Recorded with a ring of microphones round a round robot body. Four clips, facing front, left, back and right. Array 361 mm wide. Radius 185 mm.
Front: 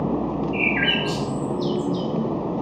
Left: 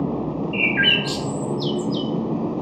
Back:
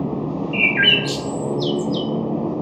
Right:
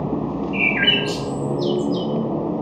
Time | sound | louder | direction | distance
0.5 | a bird | even, back 2 dB | 145° left | 0.5 m